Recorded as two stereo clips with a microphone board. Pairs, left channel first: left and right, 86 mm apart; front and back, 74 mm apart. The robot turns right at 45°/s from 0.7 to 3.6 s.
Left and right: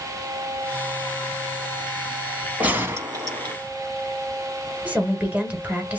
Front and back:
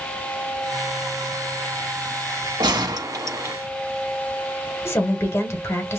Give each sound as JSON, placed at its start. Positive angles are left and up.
{"t": 2.6, "sound": "a gunshot", "azimuth_deg": -165, "distance_m": 0.7}
{"t": 4.8, "sound": "a woman speaking", "azimuth_deg": -25, "distance_m": 1.2}